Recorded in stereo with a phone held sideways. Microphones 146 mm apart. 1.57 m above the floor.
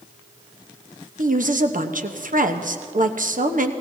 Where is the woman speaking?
65° right (ahead or behind), 1.0 m.